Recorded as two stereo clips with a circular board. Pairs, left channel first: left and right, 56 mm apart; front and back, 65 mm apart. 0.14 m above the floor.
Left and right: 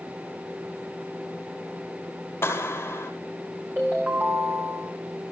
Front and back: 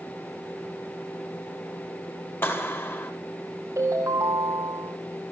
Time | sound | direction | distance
2.4 | a clap | 50° left | 4 m
3.8 | a ringtone | 140° right | 4.5 m